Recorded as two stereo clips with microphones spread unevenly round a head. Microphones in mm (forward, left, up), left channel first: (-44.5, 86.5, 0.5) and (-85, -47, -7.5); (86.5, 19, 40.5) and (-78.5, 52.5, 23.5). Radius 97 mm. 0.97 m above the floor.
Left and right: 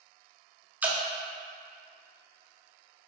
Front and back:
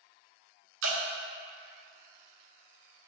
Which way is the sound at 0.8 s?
175° left.